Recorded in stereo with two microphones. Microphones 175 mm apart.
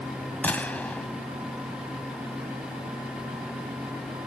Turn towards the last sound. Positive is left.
turn(degrees=10)  # may be behind; listen again after turning